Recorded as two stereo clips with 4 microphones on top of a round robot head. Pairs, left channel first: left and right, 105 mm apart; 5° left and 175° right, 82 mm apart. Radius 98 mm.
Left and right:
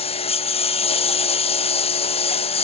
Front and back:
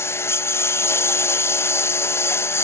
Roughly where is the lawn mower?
Ahead left.